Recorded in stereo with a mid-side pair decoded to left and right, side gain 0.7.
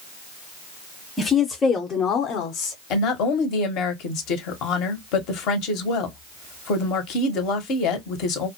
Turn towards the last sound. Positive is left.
turn(degrees=60)